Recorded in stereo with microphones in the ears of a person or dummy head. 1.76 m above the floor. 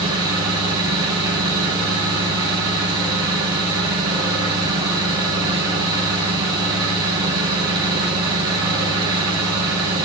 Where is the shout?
No shout in this recording.